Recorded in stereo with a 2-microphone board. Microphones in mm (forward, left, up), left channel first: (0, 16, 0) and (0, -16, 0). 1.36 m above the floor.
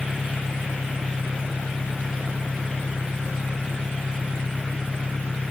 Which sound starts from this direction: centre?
An engine running, at 0.0 s.